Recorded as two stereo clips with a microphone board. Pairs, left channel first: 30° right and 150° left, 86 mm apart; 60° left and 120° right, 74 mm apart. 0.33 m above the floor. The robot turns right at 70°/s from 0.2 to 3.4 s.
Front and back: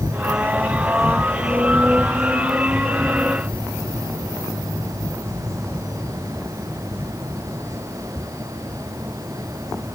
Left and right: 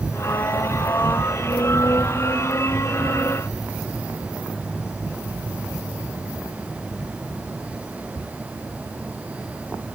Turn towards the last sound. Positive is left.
No sound to turn to.